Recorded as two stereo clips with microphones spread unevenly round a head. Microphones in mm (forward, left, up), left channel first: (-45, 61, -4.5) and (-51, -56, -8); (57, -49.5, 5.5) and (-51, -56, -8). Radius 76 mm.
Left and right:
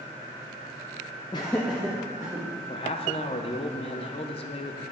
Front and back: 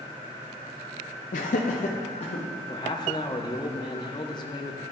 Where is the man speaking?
55° left, 0.6 m.